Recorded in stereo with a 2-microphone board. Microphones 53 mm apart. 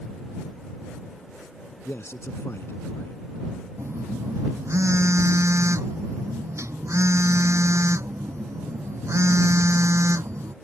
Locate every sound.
1.9 s a man speaking: 50° left (ahead or behind)
3.8 s a phone buzzing: 65° right (ahead or behind)